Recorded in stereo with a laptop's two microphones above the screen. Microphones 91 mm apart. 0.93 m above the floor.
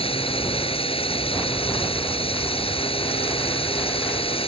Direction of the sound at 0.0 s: 85° left.